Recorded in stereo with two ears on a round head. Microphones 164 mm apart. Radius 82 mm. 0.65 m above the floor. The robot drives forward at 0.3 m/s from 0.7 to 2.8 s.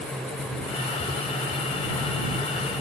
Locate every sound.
Only background noise.